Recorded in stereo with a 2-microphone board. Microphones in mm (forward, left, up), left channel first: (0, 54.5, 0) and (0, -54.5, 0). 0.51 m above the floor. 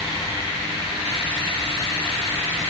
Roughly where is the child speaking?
I don't hear a child speaking.